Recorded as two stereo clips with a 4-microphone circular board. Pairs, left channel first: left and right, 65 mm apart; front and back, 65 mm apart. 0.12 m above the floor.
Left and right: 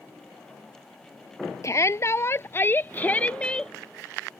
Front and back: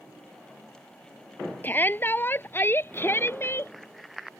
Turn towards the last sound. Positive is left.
turn(degrees=15)